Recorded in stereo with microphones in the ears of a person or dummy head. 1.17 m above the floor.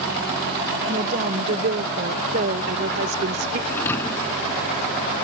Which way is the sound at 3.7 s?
15° left (ahead or behind).